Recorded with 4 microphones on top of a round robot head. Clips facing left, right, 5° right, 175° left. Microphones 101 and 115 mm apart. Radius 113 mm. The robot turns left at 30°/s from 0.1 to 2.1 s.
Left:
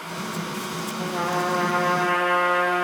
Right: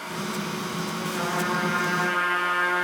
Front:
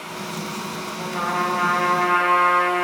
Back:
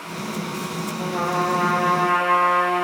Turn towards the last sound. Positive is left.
turn(degrees=100)